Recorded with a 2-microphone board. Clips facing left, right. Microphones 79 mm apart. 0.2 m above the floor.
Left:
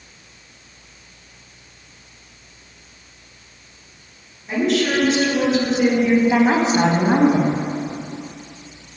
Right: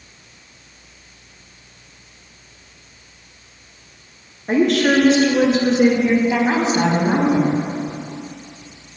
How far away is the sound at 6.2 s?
About 1.1 m.